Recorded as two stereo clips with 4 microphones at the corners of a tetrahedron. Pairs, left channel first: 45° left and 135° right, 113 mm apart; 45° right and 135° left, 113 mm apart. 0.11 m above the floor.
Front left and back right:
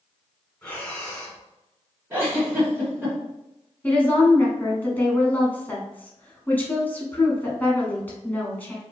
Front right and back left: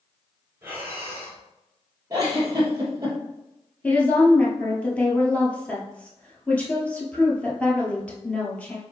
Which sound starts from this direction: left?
Breathing, at 0.6 s.